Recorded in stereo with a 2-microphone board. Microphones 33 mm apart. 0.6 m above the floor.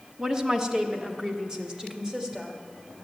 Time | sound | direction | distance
0.2 | a woman speaking | 20° right (ahead or behind) | 1.1 m